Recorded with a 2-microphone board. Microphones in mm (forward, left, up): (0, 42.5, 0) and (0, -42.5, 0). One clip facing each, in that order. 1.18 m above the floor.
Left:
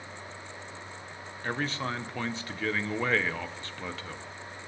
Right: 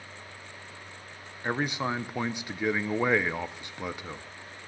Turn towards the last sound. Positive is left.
turn(degrees=-15)  # may be behind; listen again after turning